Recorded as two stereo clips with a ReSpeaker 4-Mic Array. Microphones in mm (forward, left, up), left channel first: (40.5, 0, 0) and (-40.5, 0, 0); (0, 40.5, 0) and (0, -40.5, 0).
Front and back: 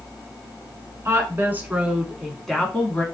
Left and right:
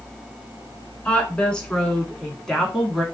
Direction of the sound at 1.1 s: 160° left.